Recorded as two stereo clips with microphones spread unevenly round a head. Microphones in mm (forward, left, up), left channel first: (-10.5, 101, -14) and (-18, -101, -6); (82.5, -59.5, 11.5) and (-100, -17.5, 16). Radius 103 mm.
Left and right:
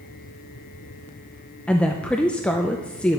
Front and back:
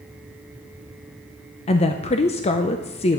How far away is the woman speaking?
About 0.5 m.